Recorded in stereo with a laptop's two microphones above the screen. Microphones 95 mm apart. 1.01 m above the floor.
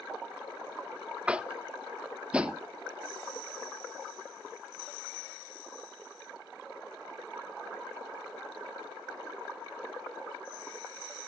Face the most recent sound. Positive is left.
turn(degrees=-10)  # may be behind; listen again after turning